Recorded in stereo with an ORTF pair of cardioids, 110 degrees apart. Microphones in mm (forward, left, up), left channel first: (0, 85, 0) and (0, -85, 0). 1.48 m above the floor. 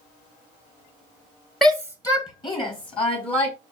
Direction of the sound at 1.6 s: Straight ahead.